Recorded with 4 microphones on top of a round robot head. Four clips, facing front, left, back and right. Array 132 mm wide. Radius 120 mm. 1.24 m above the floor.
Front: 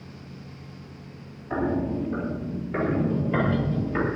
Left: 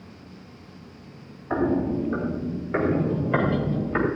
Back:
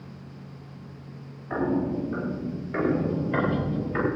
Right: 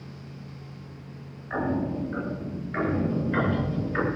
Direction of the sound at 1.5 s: 95° left.